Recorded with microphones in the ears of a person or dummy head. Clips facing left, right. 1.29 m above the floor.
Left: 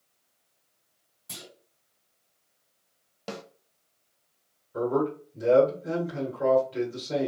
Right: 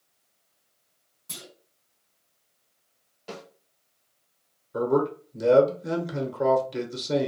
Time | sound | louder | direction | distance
1.3 | a clunk | right 1 dB | centre (ahead or behind) | 1.6 m
3.3 | a snare drum | left 2 dB | 65° left (ahead or behind) | 0.9 m
4.7 | a man speaking | right 2 dB | 60° right (ahead or behind) | 1.1 m